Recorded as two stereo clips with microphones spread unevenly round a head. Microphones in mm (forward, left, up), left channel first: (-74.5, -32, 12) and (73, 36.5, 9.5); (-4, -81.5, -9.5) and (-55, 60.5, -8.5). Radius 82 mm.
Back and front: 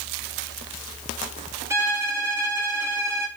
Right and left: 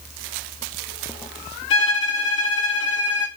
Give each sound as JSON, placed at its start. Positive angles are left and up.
{"t": 1.7, "sound": "a violin", "azimuth_deg": -50, "distance_m": 1.6}